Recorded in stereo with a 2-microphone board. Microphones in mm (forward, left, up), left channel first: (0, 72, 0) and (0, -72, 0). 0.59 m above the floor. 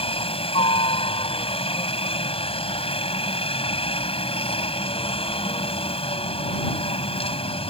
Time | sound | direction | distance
0.0 | a helicopter | 45° left (ahead or behind) | ?